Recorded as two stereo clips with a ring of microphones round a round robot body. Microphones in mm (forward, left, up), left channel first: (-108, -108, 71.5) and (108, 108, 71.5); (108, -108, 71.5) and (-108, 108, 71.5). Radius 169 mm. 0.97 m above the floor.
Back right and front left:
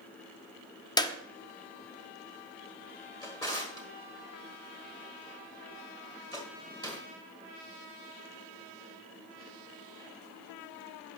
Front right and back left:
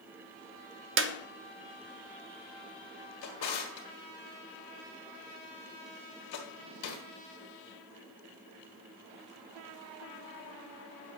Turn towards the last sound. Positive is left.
turn(degrees=-60)